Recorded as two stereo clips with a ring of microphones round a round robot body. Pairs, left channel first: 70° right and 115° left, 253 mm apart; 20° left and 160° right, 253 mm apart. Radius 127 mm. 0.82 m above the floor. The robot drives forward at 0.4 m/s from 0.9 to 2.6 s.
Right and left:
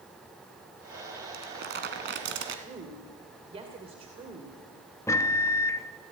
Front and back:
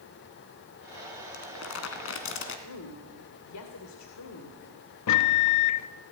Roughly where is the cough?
I don't hear a cough.